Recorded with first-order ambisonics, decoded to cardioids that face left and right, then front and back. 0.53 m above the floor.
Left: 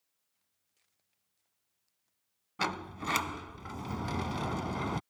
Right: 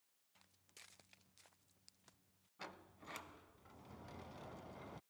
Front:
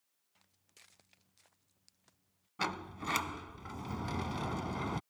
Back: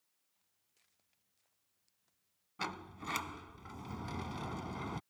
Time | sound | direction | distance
0.3 | footsteps | 45° right | ?
2.6 | a sliding door | 75° left | ?